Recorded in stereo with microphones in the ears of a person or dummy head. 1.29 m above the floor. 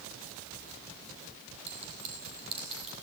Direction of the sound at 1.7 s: 35° right (ahead or behind).